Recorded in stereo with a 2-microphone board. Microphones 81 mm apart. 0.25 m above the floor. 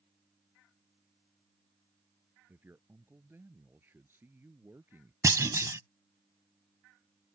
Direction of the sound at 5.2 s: 40° right (ahead or behind).